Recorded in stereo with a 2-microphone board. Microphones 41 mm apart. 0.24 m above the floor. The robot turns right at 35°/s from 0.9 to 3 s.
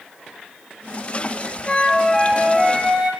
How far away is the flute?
About 4.5 m.